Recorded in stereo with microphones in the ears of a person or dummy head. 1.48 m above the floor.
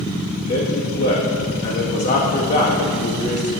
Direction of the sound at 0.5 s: 50° left (ahead or behind).